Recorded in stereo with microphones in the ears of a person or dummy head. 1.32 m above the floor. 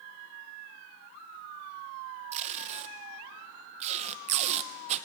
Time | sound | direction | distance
2.3 | tape being pulled | 40° right (ahead or behind) | 0.5 m